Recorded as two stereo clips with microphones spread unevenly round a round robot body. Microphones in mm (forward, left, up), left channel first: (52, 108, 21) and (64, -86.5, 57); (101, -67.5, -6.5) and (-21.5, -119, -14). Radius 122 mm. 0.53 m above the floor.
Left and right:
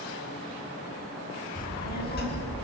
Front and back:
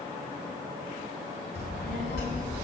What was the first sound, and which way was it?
A child speaking, 50° left.